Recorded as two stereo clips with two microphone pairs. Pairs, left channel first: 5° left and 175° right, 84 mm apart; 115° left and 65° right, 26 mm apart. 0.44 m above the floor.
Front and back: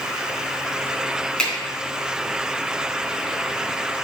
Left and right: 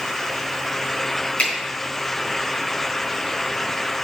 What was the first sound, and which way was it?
A finger snap, 80° left.